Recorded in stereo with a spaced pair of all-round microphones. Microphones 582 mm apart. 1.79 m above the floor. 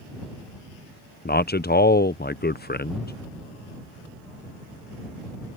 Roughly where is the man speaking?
Centre.